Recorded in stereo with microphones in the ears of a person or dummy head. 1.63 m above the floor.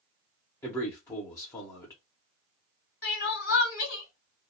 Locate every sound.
0.6 s a man speaking: 15° left (ahead or behind), 0.6 m
3.0 s crying: 65° left (ahead or behind), 1.7 m